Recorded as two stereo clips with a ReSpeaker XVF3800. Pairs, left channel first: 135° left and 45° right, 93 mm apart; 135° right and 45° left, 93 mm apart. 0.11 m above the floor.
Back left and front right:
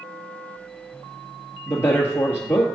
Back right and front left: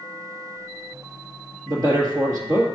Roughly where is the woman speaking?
Left.